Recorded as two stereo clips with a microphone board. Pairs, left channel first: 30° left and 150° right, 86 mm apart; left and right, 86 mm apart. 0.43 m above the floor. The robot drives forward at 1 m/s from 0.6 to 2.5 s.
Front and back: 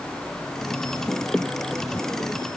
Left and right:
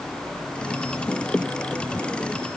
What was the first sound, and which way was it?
Only background noise.